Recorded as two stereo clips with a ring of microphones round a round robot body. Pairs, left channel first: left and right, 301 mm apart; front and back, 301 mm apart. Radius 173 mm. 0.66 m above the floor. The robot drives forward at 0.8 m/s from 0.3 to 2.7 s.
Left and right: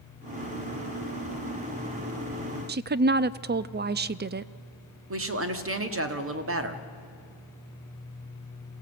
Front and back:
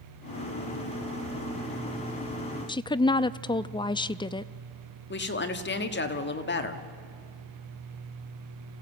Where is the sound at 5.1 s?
50° right, 1.7 m.